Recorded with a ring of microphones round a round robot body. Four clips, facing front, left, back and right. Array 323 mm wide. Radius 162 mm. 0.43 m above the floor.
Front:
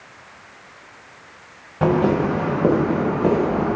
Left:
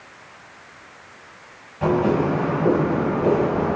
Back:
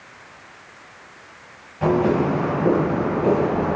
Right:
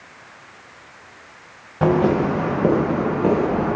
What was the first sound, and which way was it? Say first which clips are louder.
Footsteps: right 2 dB, front 1 dB; 50° right.